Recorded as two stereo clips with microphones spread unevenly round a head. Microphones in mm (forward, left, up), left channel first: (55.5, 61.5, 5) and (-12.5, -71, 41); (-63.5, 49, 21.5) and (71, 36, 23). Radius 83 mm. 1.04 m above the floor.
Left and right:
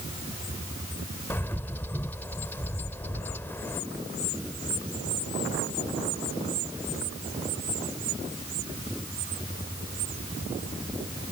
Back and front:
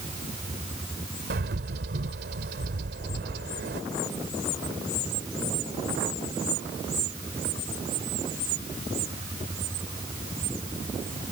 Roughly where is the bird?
Ahead.